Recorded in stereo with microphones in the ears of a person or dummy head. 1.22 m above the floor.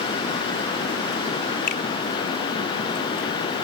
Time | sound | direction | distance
1.7 | a finger snap | 50° left (ahead or behind) | ?